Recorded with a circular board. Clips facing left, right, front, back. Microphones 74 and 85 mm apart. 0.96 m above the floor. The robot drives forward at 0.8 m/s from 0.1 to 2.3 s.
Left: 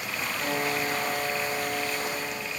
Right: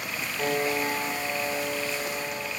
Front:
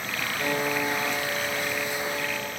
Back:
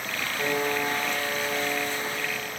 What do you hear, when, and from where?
0.4 s a piano: 110° right, 0.8 m; by 2.5 s 165° right, 1.9 m